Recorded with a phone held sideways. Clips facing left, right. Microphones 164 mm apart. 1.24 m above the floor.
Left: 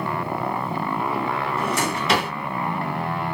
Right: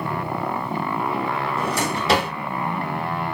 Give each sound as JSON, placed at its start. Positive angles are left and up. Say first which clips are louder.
{"t": 1.6, "sound": "a drawer", "louder": "even", "side_deg": -35, "distance_m": 1.4}